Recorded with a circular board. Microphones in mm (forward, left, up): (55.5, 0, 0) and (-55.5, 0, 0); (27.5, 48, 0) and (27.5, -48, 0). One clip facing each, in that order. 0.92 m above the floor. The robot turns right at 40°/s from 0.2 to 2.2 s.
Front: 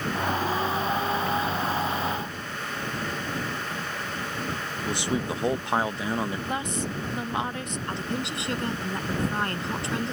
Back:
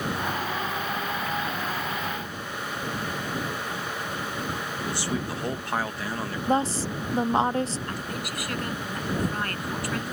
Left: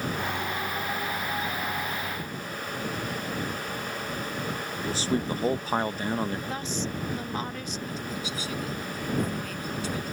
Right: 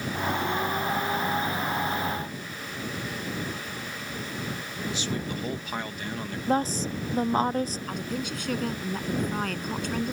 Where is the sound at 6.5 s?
130° right.